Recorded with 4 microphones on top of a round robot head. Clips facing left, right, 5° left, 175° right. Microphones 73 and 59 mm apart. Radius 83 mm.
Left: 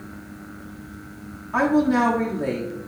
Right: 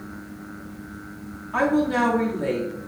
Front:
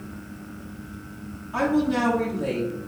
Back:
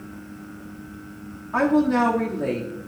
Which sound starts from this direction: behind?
A woman speaking, at 1.5 s.